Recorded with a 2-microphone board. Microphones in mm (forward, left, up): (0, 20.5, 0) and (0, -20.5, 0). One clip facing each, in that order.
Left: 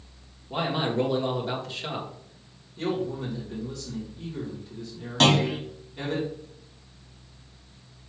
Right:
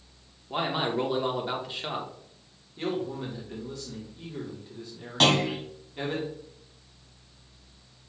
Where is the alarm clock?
I don't hear an alarm clock.